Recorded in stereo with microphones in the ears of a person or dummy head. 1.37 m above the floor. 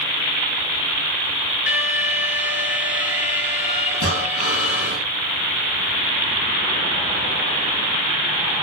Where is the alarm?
45° left (ahead or behind), 9 m.